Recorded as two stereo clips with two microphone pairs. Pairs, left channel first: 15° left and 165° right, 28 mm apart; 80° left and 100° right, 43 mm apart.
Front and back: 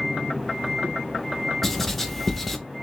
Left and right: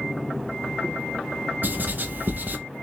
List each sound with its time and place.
1.6 s writing: 60° right, 0.5 m